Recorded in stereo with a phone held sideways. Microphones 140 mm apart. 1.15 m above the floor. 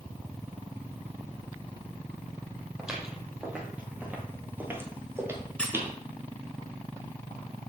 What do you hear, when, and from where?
2.8 s footsteps: 5° right (ahead or behind), 2.0 m; by 5.9 s 15° right (ahead or behind), 1.3 m
5.6 s a squeak: 5° left (ahead or behind), 1.1 m